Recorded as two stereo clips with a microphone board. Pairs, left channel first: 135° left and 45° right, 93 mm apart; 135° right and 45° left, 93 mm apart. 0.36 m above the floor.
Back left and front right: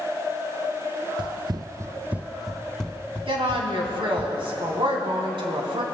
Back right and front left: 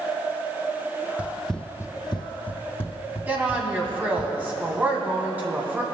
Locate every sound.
1.2 s running footsteps: 30° right, 0.6 m; by 4.3 s 155° right, 1.8 m
3.3 s a woman speaking: 25° right, 2 m